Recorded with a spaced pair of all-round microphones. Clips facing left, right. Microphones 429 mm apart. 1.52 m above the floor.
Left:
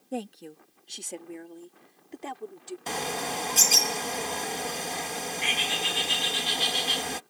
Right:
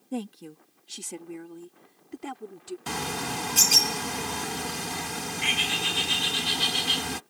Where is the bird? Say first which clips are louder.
Left 1 dB; 25° right (ahead or behind).